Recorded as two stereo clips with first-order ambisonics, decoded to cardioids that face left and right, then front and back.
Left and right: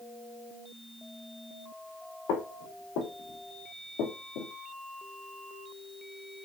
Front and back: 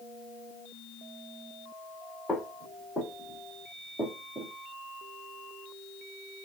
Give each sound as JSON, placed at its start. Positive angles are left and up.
{"t": 2.3, "sound": "footsteps", "azimuth_deg": 80, "distance_m": 4.0}